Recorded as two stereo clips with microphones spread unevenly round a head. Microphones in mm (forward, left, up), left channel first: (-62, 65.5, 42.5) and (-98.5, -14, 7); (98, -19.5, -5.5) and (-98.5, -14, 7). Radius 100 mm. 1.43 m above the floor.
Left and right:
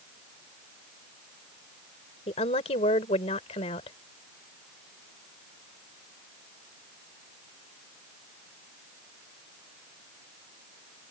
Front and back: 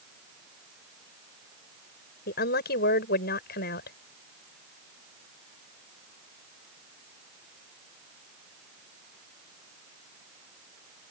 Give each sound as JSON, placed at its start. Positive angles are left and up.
{"t": 2.3, "sound": "a woman speaking", "azimuth_deg": 45}